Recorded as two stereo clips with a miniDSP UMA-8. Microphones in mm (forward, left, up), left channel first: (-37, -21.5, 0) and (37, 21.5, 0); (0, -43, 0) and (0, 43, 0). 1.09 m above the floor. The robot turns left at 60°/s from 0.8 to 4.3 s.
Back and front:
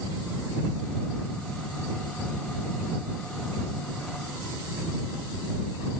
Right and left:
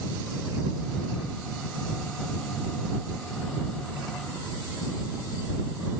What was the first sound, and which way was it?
Only background noise.